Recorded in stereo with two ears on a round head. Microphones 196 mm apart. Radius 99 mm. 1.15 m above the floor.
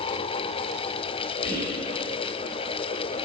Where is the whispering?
50° left (ahead or behind), 2.5 m.